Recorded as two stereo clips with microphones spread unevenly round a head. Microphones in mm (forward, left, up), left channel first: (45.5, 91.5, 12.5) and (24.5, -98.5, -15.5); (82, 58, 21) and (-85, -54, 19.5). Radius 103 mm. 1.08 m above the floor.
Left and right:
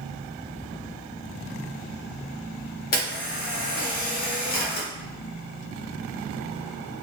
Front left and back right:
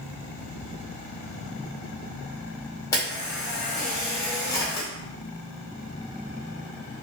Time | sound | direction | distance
2.9 | a camera shutter | 105° left | 0.7 m